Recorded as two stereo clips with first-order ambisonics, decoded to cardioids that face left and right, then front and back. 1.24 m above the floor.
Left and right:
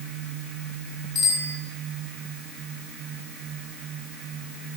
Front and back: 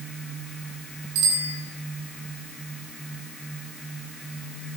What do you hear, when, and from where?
1.1 s a bicycle bell: 150° left, 9 m